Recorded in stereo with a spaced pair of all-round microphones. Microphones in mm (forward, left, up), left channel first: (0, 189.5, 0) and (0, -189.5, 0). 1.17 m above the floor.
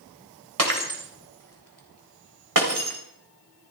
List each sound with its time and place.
0.6 s breaking glass: 55° right (ahead or behind), 3.5 m